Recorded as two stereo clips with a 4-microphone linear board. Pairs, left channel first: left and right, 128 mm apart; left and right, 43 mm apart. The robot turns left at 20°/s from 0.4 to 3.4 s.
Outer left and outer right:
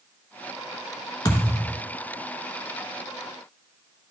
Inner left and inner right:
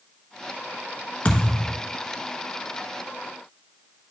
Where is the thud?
30° left (ahead or behind), 1.0 m; by 1.8 s 40° left (ahead or behind), 1.0 m.